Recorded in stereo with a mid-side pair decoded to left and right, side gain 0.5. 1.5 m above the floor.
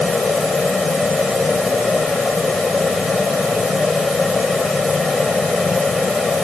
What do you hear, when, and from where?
0.0 s a fan: 25° left